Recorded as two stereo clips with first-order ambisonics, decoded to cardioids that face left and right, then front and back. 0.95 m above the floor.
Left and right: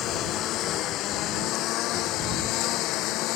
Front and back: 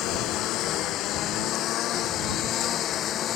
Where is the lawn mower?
40° left; by 3.4 s 55° left.